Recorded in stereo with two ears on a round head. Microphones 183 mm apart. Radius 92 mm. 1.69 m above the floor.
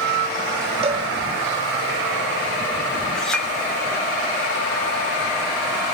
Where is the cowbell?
30° right (ahead or behind), 2.5 m.